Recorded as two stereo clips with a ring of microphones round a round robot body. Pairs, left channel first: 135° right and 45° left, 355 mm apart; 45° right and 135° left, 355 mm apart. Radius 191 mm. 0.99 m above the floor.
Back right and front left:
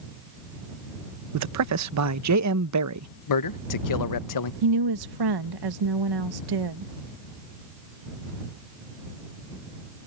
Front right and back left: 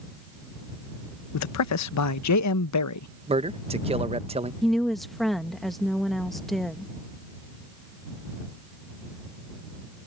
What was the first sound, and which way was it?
A man speaking, straight ahead.